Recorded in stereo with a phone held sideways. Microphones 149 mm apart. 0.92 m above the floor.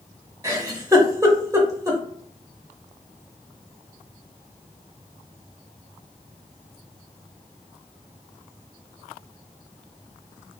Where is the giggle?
25° right (ahead or behind), 0.7 m.